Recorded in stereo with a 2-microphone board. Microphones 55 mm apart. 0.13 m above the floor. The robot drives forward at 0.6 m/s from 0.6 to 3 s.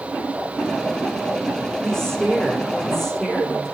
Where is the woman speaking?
15° left (ahead or behind), 7 m; by 3.8 s 10° left (ahead or behind), 8 m.